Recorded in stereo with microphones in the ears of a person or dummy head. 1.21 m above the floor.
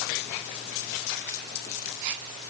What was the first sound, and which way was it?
Only background noise.